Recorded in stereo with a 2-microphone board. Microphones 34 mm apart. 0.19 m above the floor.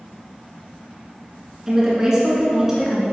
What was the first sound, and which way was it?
A woman speaking, 15° right (ahead or behind).